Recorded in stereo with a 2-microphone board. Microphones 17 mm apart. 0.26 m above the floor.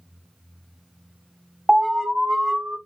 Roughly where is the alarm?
Centre.